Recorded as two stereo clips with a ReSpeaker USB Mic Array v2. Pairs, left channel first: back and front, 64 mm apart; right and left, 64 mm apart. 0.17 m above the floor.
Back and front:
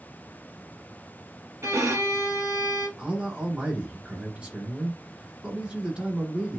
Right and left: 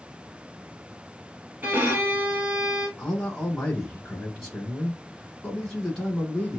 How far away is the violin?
About 1.0 m.